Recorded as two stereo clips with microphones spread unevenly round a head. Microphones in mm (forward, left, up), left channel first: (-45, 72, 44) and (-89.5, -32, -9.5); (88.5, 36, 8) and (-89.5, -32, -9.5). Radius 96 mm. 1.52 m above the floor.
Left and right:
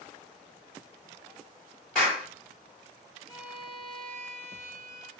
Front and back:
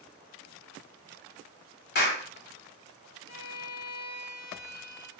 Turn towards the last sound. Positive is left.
turn(degrees=-15)